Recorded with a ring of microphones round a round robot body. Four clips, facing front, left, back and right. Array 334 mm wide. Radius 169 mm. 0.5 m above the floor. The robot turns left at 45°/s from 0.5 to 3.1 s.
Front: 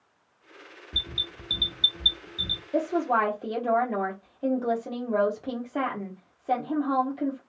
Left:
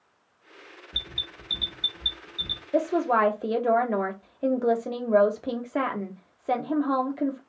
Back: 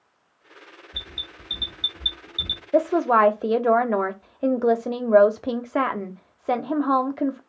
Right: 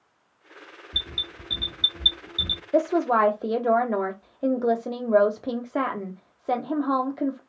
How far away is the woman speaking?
About 0.9 m.